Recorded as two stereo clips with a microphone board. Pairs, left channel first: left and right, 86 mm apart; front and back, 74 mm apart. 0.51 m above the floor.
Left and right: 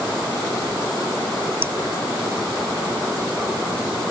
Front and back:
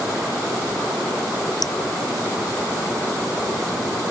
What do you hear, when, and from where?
1.6 s dripping: 25° right